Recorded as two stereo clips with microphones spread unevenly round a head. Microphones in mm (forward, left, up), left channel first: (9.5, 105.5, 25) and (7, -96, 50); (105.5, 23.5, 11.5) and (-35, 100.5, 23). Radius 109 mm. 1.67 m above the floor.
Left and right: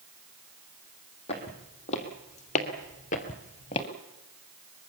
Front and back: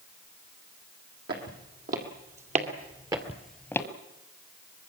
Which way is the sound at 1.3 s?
155° left.